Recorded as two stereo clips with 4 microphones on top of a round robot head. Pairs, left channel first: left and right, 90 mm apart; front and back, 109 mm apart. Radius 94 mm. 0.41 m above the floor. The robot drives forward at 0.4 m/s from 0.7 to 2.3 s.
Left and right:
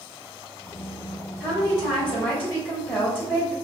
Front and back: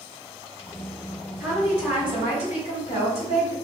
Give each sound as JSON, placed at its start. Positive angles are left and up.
{"t": 1.4, "sound": "a woman speaking", "azimuth_deg": 110, "distance_m": 1.8}